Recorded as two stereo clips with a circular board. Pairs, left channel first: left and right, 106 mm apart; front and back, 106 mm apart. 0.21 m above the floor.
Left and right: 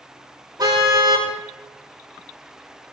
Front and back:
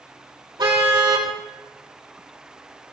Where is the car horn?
140° right, 4 m.